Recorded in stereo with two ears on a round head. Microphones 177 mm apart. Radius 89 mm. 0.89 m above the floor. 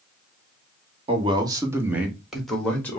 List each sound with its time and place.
1.1 s a man speaking: 30° right (ahead or behind), 1.1 m; by 3.0 s 10° left (ahead or behind), 1.5 m